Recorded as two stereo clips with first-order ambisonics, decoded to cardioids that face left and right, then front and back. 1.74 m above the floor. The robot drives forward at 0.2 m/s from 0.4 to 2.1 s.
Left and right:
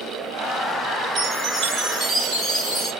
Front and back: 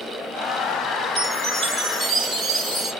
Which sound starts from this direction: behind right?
A chime, at 1.2 s.